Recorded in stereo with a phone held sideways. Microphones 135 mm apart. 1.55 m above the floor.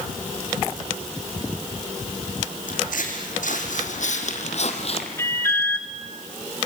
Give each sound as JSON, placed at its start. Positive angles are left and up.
{"t": 2.7, "sound": "footsteps", "side_deg": 75, "distance_m": 5.0}
{"t": 5.2, "sound": "an alarm", "side_deg": 20, "distance_m": 3.5}